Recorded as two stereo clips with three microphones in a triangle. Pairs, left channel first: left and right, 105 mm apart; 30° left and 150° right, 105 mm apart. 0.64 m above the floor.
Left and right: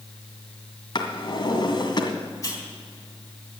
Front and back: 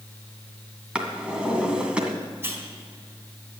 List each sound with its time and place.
0.9 s a drawer: 130° left, 1.9 m
2.4 s a hiss: 145° left, 4 m